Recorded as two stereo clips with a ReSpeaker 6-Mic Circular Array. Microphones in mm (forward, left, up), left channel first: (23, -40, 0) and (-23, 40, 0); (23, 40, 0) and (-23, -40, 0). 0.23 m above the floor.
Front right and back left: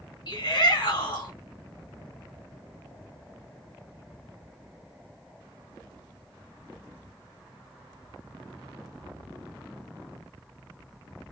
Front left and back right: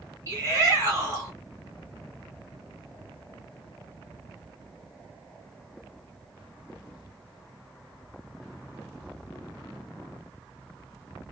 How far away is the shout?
About 2.5 m.